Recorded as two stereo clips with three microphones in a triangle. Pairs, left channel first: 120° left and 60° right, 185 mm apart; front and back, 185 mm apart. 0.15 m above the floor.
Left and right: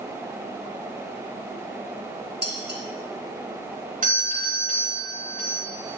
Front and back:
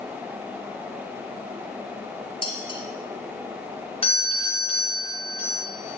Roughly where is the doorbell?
Ahead right.